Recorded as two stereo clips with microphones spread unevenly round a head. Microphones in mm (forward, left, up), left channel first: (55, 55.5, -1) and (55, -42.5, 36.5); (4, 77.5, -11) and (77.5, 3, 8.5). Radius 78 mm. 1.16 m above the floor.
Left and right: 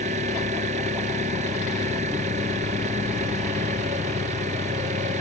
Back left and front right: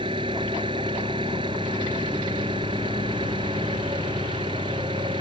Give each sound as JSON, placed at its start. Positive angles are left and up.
{"t": 0.0, "sound": "an engine running", "azimuth_deg": -105}